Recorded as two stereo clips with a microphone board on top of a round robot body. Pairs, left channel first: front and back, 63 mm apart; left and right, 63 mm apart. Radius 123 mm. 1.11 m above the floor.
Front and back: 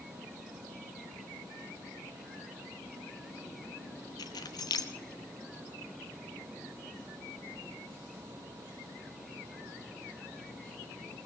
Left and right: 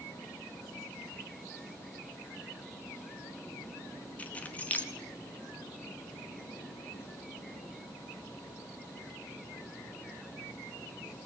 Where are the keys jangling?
20° left, 0.9 m.